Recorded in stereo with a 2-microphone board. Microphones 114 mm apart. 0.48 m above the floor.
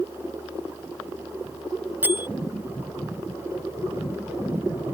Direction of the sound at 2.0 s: 15° right (ahead or behind).